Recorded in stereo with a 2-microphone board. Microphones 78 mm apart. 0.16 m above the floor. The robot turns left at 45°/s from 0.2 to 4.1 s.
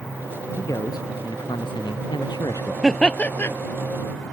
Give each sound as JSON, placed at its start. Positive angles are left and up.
{"t": 0.6, "sound": "a man speaking", "azimuth_deg": 145}
{"t": 2.8, "sound": "laughter", "azimuth_deg": 180}